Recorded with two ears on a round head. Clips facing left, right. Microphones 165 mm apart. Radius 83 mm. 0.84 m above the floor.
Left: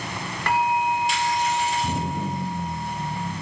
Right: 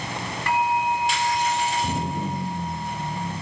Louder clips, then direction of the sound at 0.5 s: Left 1 dB; 55° left (ahead or behind).